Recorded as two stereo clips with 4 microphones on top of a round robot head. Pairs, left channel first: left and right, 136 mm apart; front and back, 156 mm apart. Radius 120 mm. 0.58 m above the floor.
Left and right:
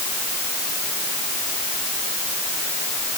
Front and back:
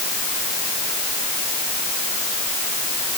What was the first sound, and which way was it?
Only background noise.